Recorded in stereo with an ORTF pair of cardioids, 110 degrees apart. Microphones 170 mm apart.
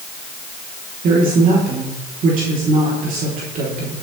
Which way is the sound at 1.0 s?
55° right.